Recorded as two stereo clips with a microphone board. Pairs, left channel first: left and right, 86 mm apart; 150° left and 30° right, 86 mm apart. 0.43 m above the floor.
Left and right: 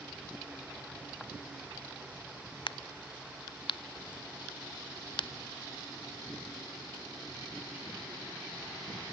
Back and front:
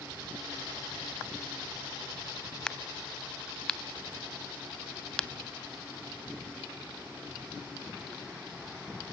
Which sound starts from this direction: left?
A crack, at 2.7 s.